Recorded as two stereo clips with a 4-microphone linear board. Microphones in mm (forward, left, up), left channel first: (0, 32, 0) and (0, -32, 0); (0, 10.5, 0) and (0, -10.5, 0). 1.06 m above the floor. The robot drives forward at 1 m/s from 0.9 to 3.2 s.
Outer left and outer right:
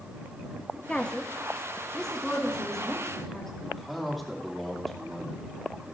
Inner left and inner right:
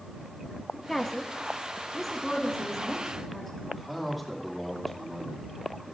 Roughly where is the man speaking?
Centre.